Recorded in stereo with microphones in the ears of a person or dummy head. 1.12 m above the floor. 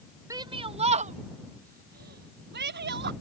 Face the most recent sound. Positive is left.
turn(degrees=-50)  # may be behind; listen again after turning